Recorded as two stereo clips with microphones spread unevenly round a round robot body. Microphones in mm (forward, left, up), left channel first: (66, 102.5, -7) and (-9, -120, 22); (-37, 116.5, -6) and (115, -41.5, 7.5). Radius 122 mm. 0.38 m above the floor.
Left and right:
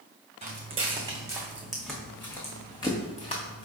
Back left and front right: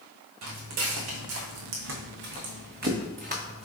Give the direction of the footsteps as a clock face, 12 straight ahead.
2 o'clock.